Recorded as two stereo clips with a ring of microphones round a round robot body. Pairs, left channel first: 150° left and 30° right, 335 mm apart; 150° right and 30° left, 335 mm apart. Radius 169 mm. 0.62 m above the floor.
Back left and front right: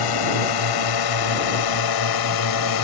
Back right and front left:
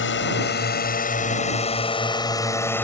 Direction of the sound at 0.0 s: 155° left.